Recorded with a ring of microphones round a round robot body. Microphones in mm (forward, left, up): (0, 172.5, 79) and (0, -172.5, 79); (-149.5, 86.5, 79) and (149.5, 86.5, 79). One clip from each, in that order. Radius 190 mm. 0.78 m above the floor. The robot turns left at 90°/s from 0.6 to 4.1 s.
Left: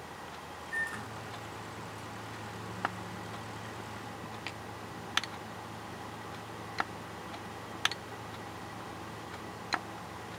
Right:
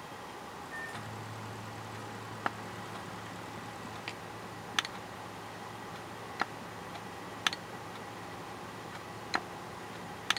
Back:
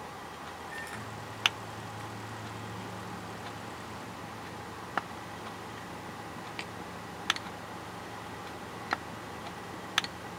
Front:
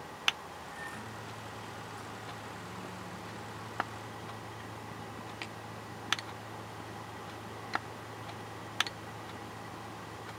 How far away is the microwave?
About 9.5 m.